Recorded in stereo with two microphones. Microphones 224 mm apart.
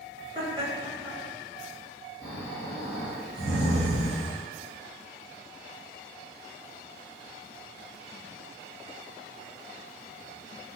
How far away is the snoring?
About 1.7 m.